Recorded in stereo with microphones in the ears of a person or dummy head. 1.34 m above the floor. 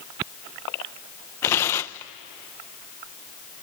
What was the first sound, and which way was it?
Tearing paper, 10° left (ahead or behind).